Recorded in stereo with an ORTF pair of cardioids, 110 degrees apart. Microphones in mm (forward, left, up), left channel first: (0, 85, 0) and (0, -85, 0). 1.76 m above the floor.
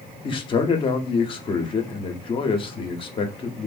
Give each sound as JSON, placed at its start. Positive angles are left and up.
{"t": 0.2, "sound": "a man speaking", "azimuth_deg": 30, "distance_m": 0.7}